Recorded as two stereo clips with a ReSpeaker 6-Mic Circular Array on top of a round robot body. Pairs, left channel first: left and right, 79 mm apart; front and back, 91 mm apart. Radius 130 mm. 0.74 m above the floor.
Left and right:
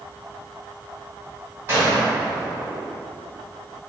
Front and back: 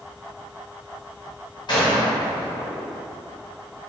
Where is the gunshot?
40° right, 1.0 m.